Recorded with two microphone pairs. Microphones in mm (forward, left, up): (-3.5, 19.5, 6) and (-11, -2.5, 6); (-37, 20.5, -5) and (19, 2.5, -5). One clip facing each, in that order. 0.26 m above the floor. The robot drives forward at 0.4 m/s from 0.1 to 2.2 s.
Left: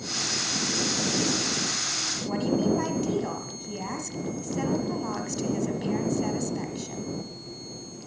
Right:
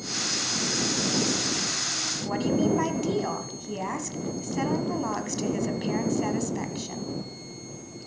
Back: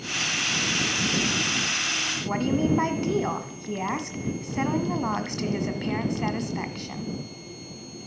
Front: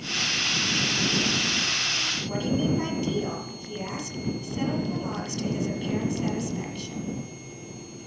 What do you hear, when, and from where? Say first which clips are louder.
2.2 s a woman speaking: right 1 dB, back 3 dB; straight behind, 1.6 m